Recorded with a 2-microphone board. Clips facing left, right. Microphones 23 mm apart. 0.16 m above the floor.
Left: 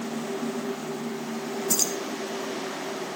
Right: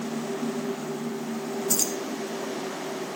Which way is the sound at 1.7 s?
20° left (ahead or behind).